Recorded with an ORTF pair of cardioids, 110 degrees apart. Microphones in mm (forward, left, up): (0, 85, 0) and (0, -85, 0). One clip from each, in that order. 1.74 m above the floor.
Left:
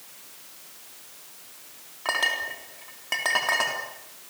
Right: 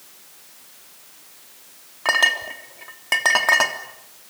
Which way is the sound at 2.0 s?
40° right.